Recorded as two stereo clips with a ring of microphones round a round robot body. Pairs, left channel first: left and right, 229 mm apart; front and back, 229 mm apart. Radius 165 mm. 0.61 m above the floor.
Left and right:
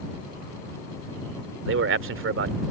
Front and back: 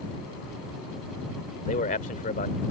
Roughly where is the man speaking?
Ahead right.